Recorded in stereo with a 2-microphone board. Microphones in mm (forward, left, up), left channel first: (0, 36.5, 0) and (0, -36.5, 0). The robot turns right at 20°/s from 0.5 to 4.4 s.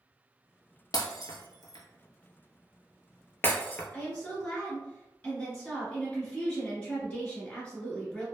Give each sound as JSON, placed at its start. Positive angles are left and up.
{"t": 0.9, "sound": "breaking glass", "side_deg": 55, "distance_m": 0.5}
{"t": 3.9, "sound": "a woman speaking", "side_deg": 20, "distance_m": 1.4}